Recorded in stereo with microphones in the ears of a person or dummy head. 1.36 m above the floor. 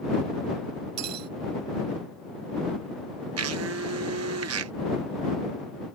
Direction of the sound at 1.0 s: 45° right (ahead or behind).